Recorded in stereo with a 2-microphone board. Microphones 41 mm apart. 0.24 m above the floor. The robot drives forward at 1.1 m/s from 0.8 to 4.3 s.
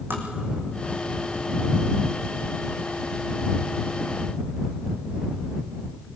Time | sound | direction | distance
0.1 | tapping | 70° right (ahead or behind) | 4.5 m